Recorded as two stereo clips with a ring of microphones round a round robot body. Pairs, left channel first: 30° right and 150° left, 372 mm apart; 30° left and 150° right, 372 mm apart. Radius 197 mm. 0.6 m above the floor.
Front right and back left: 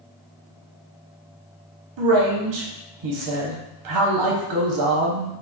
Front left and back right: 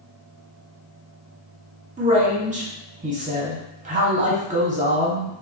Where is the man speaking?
145° left, 1.0 m.